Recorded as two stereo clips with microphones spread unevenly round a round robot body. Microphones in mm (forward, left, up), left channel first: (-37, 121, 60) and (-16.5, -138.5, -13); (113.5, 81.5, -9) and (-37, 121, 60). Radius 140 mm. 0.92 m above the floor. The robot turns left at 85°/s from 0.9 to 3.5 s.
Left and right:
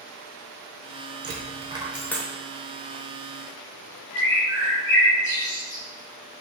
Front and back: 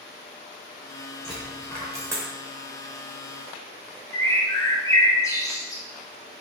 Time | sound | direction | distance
1.2 | a dropped coin | 130° right | 0.7 m
4.1 | a bird | 70° left | 0.9 m